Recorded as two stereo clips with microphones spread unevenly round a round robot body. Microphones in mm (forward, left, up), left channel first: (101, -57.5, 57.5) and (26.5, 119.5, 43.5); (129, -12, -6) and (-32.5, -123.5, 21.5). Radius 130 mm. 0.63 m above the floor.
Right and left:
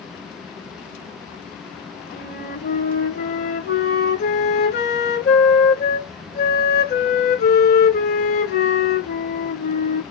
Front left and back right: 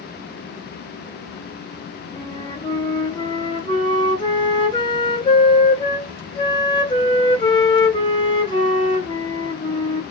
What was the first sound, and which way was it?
A flute, 30° right.